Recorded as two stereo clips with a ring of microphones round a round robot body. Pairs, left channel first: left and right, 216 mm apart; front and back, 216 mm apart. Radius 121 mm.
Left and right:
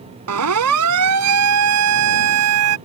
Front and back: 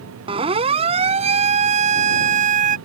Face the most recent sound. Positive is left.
turn(degrees=-120)